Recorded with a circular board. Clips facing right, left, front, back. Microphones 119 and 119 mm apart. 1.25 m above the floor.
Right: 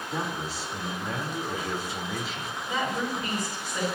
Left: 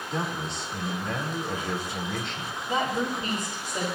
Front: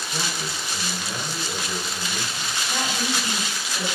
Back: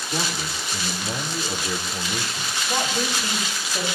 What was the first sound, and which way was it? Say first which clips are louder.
A man speaking: left 1 dB, back 3 dB; 175° right.